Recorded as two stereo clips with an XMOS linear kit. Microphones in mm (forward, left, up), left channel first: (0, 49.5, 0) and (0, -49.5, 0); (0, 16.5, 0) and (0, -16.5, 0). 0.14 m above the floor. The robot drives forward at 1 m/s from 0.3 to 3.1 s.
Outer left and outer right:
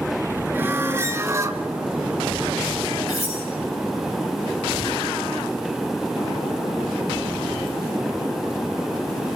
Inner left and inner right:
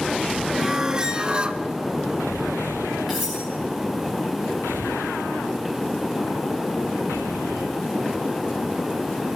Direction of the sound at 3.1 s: Centre (ahead or behind).